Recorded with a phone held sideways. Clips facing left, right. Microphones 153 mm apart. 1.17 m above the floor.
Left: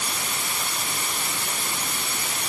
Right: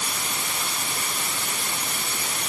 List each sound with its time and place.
Only background noise.